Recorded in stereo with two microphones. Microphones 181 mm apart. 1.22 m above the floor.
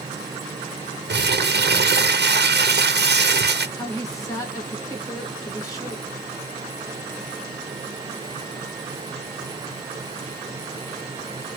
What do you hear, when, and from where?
1.1 s crumpling: 70° right (ahead or behind), 0.6 m
3.8 s a woman speaking: 20° left (ahead or behind), 1.6 m